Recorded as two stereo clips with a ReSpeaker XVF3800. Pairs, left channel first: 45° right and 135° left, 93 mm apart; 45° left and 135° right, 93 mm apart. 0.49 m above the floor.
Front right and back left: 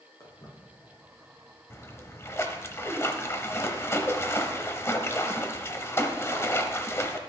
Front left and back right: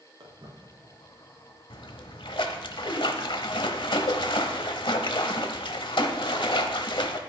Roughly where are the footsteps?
Right.